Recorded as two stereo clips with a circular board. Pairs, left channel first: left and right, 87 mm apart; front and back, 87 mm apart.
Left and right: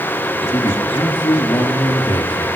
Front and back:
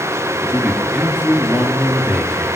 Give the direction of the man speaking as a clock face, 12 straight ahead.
8 o'clock.